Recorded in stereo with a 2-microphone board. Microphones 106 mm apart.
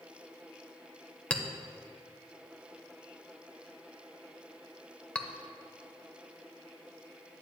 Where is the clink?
10° left (ahead or behind), 0.7 m.